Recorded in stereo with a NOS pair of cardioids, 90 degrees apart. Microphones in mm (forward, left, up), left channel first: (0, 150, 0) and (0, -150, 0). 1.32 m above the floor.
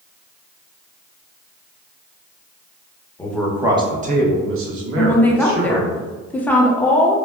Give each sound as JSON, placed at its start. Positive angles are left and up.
{"t": 3.2, "sound": "a man speaking", "azimuth_deg": 10, "distance_m": 0.8}
{"t": 5.0, "sound": "a woman speaking", "azimuth_deg": 5, "distance_m": 0.5}